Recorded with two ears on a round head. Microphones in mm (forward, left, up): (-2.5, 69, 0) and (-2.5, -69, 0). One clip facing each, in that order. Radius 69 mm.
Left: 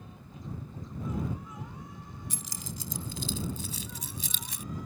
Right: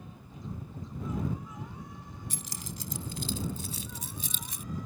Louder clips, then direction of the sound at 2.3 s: Even; 90° left.